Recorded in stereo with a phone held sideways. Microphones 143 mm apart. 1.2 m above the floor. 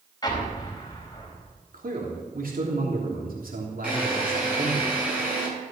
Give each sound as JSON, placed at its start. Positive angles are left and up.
{"t": 0.2, "sound": "an explosion", "side_deg": 25, "distance_m": 4.5}
{"t": 1.7, "sound": "a man speaking", "side_deg": -85, "distance_m": 3.0}
{"t": 3.8, "sound": "a drill", "side_deg": -5, "distance_m": 9.0}